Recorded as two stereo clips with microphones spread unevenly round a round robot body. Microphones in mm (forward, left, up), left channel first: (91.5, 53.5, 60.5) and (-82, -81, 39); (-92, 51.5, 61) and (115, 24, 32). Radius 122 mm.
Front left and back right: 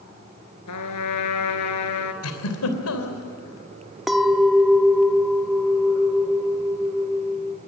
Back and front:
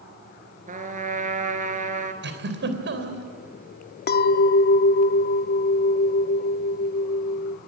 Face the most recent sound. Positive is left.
turn(degrees=130)